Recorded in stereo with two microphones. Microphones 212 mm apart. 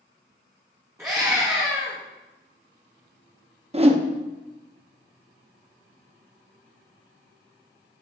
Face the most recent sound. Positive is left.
turn(degrees=-30)  # may be behind; listen again after turning